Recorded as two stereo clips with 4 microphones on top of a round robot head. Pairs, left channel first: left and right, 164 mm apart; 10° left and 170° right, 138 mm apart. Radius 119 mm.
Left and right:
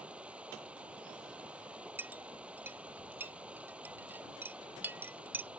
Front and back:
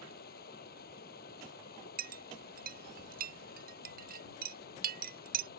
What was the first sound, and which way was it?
Running water, 5° right.